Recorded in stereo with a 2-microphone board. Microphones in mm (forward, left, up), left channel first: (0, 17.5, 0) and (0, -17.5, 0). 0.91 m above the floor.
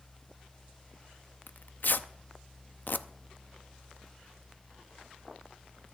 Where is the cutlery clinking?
No cutlery clinking in this recording.